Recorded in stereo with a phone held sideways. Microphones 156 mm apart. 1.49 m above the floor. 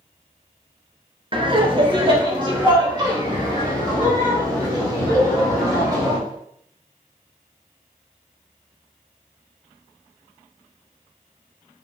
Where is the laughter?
35° right (ahead or behind), 1.3 m; by 6.2 s 30° right (ahead or behind), 5.5 m.